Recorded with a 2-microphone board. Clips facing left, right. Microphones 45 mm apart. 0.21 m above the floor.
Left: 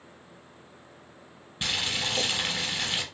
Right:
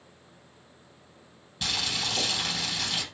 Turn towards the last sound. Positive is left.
turn(degrees=25)  # may be behind; listen again after turning